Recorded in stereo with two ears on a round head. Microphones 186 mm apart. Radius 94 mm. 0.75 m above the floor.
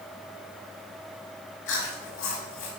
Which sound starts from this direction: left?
Chewing, at 1.7 s.